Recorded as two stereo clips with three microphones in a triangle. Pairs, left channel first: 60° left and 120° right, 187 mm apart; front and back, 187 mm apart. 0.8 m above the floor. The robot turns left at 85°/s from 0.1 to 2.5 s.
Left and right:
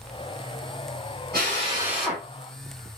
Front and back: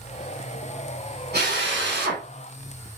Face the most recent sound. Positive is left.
turn(degrees=110)